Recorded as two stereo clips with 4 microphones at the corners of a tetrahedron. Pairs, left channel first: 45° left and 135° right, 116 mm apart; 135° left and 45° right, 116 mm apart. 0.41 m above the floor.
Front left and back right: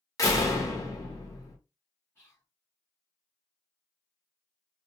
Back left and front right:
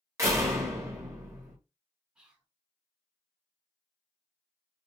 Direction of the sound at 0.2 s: Straight ahead.